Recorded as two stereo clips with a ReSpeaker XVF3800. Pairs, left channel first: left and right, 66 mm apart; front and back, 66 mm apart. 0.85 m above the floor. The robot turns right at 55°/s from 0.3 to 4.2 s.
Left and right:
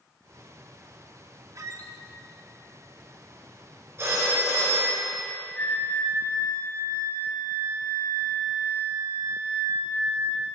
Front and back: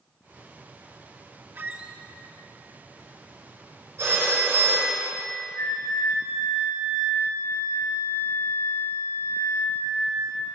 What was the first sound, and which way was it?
A squeak, 120° right.